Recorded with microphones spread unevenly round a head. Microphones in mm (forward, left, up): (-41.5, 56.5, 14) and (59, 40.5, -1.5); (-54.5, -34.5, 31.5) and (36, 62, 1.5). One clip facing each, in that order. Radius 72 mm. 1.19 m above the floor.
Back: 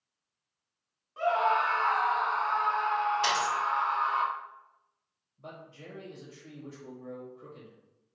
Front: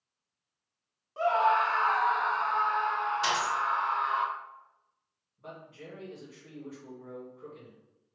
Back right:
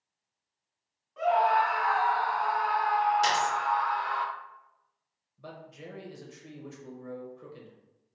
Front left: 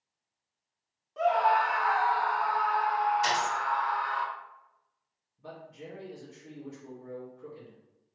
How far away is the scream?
About 0.9 m.